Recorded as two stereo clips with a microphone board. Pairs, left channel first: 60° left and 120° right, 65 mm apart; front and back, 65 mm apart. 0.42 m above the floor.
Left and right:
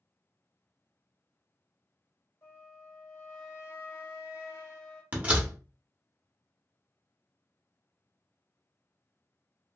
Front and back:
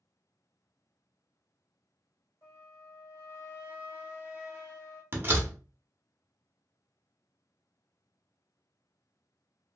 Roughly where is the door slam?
Behind.